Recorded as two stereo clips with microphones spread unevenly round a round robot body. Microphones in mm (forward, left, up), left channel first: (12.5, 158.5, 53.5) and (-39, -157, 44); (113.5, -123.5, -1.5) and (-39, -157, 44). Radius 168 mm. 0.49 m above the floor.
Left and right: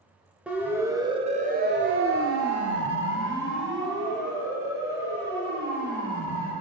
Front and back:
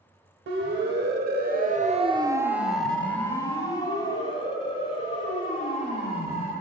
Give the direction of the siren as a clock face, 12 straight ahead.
6 o'clock.